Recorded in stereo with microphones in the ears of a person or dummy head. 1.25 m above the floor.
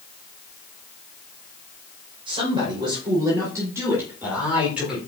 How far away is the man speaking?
About 4.5 m.